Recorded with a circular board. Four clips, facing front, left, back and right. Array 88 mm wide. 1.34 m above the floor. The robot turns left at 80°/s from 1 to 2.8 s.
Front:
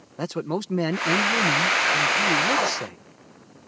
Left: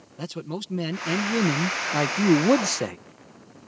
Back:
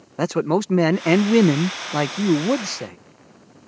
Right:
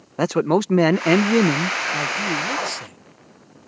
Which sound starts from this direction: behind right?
A man speaking, at 0.2 s.